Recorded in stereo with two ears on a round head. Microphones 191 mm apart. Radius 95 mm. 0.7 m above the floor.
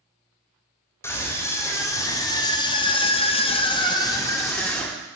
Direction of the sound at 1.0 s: 10° left (ahead or behind).